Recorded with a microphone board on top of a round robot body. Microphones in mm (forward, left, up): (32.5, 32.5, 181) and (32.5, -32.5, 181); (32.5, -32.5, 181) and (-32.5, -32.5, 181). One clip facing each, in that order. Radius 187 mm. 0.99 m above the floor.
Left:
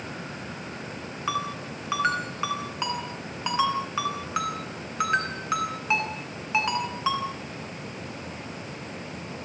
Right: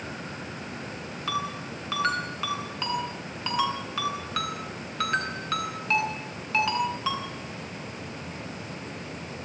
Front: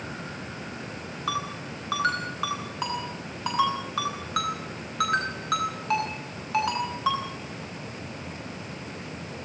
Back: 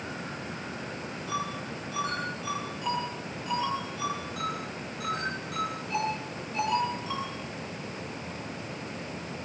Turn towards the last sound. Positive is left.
turn(degrees=20)